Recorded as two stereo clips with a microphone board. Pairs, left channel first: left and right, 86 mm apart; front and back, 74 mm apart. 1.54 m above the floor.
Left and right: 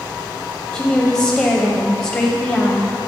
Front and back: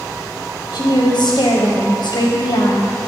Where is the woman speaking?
25° left, 0.9 m.